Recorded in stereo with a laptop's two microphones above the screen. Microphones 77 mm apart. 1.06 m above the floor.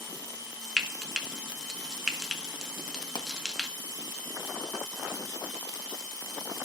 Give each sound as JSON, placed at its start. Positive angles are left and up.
{"t": 0.8, "sound": "frying", "side_deg": 0, "distance_m": 1.6}
{"t": 3.1, "sound": "a pop", "side_deg": 75, "distance_m": 1.1}